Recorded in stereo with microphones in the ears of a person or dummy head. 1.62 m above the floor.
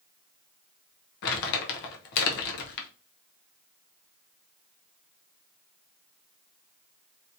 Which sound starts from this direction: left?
Crumpling, at 1.2 s.